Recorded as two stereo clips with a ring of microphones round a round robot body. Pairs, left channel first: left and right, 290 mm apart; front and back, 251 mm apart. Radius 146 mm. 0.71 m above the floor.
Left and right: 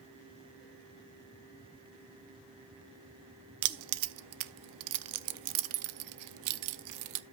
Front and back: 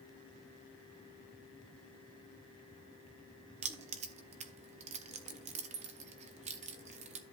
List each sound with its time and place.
3.6 s keys jangling: 115° right, 0.6 m